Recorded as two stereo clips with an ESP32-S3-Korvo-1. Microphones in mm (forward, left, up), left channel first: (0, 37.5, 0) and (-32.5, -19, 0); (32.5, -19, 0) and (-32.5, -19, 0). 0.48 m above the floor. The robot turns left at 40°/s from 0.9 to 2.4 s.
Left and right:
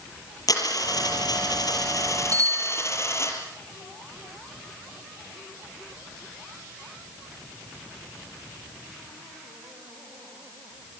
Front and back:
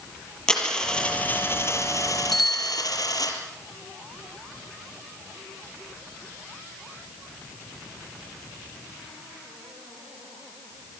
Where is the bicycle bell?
90° right, 3.5 m; by 2.9 s 95° right, 3.5 m.